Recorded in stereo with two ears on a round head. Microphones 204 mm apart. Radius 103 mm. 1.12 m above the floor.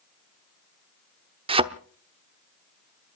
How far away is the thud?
About 1.0 m.